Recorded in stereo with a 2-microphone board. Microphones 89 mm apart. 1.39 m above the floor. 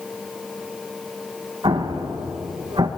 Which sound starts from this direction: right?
An explosion, at 1.6 s.